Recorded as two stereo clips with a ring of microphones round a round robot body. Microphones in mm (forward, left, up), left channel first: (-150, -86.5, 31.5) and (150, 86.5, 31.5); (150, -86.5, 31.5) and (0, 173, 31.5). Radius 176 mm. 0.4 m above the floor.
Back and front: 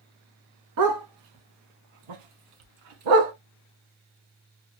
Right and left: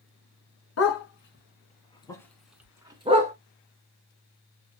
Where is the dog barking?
15° right, 1.3 m; by 3.3 s 50° left, 1.3 m.